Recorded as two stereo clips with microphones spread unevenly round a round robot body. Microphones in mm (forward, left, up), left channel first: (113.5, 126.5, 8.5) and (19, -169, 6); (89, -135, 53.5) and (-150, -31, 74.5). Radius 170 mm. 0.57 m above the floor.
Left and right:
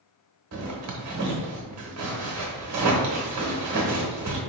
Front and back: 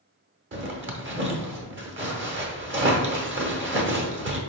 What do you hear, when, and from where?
0.5 s a zipper: 155° right, 1.1 m